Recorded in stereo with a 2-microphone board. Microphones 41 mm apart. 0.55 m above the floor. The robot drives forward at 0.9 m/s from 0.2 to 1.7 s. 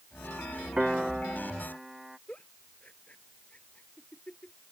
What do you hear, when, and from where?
0.8 s a piano: 25° right (ahead or behind); by 2.2 s 10° right (ahead or behind)
2.3 s a giggle: 35° left (ahead or behind)